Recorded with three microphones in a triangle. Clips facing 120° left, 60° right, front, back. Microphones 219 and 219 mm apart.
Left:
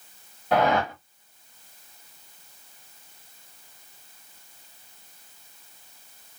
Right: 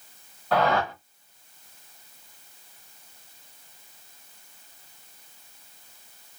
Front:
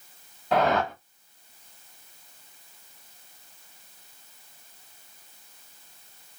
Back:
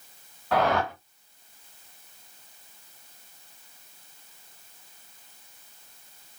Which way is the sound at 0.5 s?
60° left.